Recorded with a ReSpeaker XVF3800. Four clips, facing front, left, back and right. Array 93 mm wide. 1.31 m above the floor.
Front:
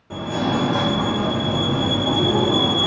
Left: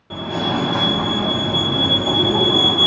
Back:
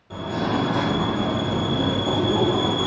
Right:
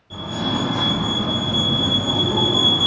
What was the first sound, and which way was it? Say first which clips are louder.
A fire alarm: left 3 dB, front 2 dB; 75° left.